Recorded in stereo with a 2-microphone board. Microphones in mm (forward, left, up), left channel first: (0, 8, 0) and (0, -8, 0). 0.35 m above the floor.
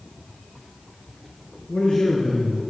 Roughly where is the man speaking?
Left.